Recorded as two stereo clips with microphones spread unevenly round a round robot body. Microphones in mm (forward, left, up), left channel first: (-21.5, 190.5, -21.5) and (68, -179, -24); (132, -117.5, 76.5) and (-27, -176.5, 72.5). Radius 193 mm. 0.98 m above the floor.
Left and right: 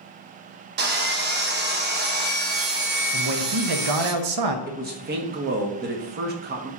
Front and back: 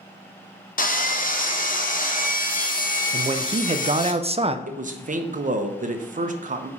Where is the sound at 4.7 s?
135° right, 0.9 m.